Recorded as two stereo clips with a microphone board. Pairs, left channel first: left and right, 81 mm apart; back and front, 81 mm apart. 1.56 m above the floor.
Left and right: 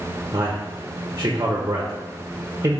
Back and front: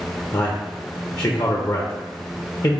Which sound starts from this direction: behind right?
A man speaking, at 0.3 s.